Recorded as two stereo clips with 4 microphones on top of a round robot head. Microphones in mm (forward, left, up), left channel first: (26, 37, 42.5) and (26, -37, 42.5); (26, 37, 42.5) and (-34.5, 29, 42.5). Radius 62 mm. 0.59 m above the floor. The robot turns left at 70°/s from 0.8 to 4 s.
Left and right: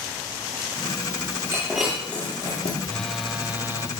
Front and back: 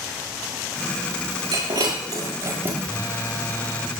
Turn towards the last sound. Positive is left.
turn(degrees=-60)